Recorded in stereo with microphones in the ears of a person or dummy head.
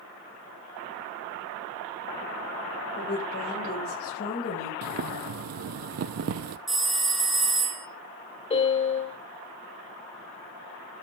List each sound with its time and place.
3.0 s a woman speaking: 55° left (ahead or behind), 6 m; by 4.7 s 45° left (ahead or behind), 4.5 m
4.8 s boiling: 50° right (ahead or behind), 0.5 m
6.7 s a phone ringing: 5° right (ahead or behind), 2.5 m
8.5 s a piano: 30° left (ahead or behind), 4 m